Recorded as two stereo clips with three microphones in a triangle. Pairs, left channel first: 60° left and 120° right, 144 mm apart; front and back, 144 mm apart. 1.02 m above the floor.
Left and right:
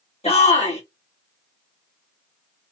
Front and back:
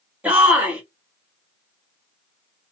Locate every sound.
0.2 s a shout: 100° left, 1.7 m